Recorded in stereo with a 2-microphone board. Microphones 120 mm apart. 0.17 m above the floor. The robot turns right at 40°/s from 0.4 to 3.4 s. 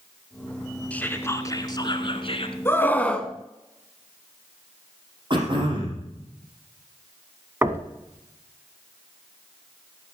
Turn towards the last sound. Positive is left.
turn(degrees=-20)  # may be behind; listen again after turning